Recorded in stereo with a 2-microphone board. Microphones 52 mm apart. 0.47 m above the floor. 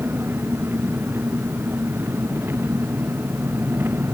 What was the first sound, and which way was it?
An engine running, 45° right (ahead or behind).